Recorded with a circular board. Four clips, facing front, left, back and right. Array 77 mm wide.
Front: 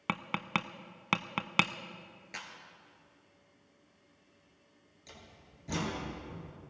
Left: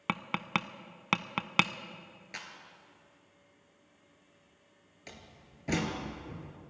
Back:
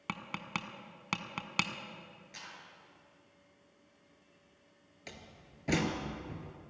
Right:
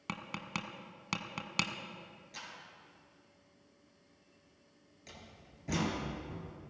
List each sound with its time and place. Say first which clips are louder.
0.1 s tapping: left 8 dB, front 6 dB; 55° left, 0.6 m
2.3 s a clap: left 4 dB, front 6 dB; 50° left, 2.5 m
5.1 s a door slam: left 2 dB, back 3 dB; 150° left, 2.5 m